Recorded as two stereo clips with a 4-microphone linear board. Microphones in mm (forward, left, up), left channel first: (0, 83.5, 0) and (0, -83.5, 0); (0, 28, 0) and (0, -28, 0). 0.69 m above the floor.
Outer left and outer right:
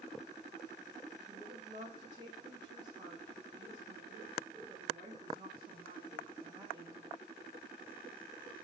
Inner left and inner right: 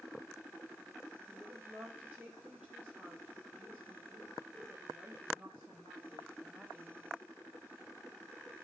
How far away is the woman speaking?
About 1.9 m.